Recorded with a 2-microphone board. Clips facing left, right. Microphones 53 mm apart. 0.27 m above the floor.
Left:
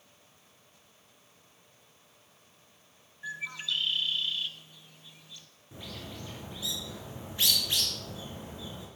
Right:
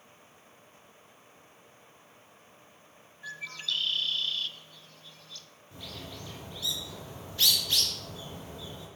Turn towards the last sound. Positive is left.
turn(degrees=15)  # may be behind; listen again after turning